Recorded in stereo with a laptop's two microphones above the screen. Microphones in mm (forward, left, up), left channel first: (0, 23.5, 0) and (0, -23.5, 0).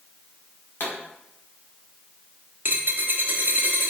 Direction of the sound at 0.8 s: 50° left (ahead or behind).